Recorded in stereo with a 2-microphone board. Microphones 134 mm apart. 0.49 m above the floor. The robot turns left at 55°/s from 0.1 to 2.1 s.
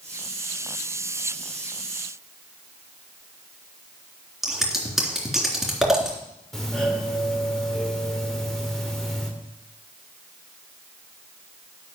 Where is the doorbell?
5° left (ahead or behind), 2.5 m.